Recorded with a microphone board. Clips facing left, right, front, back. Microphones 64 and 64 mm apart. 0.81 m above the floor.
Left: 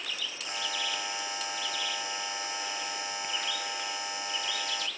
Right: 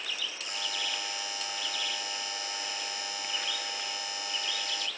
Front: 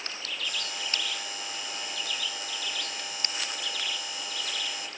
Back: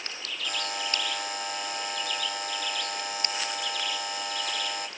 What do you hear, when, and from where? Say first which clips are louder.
0.4 s a buzzer: left 3 dB, back 5 dB; 150° left, 1.5 m